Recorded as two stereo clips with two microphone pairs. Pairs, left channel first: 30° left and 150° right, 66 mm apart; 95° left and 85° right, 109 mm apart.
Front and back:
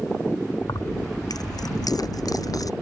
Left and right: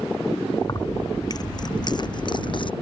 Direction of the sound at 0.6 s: 40° left.